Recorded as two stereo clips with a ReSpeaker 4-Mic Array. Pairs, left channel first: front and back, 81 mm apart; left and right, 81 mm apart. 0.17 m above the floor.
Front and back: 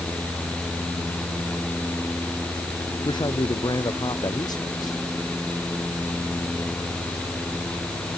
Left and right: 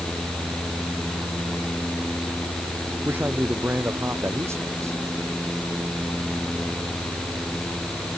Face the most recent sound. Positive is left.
turn(degrees=-40)